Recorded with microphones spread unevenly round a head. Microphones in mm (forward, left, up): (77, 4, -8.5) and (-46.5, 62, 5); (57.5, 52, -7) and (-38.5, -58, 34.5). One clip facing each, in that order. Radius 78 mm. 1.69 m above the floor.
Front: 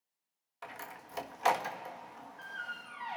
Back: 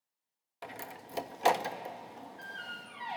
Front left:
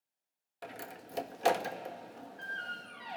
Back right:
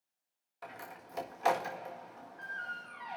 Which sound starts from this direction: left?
A door slam, at 0.6 s.